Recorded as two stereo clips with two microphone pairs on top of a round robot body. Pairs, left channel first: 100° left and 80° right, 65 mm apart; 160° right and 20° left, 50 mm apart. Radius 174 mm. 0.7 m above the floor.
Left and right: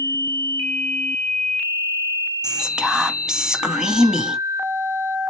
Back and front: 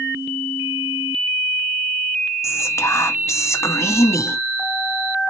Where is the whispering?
155° right, 1.2 m.